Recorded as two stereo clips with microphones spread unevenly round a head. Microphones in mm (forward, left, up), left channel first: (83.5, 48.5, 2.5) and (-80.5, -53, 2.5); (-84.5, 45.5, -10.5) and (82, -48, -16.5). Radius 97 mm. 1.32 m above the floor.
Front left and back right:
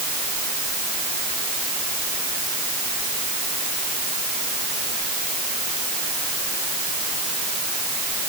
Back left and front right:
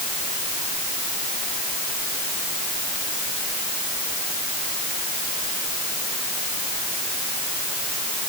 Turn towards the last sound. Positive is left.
No sound to turn to.